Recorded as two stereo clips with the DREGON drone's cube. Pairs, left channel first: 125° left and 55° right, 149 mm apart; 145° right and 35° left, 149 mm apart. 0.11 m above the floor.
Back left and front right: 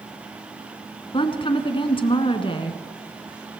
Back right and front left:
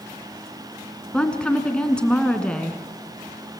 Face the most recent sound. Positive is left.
turn(degrees=135)